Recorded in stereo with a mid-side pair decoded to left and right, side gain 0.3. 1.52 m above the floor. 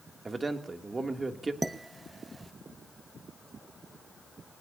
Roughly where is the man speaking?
Ahead right.